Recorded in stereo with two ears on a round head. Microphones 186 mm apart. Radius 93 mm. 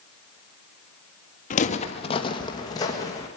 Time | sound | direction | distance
1.5 | footsteps | 40° left (ahead or behind) | 1.1 m